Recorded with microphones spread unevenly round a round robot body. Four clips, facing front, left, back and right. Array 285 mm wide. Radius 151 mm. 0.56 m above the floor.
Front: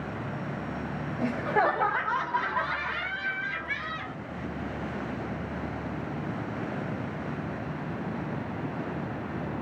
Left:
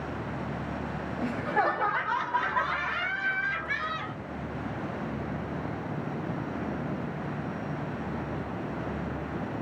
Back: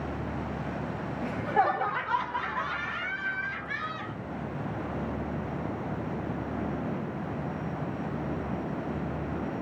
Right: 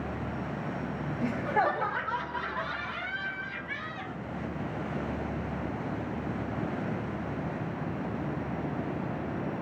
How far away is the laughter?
About 1.7 m.